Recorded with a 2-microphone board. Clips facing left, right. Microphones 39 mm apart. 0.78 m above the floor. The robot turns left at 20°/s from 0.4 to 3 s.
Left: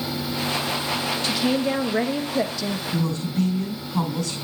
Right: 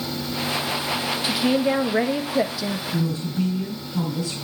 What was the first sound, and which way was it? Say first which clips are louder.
A woman speaking: right 3 dB; 15° right (ahead or behind).